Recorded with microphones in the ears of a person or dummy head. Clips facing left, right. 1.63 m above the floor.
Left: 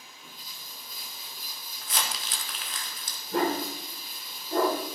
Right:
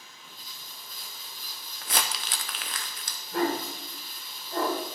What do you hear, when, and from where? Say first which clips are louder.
0.0 s running water: left 1 dB; 20° left (ahead or behind), 2 m
1.8 s crumpling: right 2 dB; 45° right (ahead or behind), 0.6 m
3.3 s a dog barking: left 1 dB; 35° left (ahead or behind), 1.7 m